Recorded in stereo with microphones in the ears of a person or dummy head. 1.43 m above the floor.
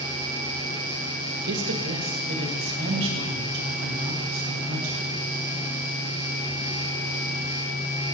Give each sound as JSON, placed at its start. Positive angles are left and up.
{"t": 1.4, "sound": "a woman speaking", "side_deg": -70, "distance_m": 1.3}